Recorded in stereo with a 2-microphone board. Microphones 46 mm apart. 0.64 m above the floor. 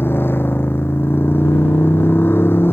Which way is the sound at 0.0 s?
50° left (ahead or behind).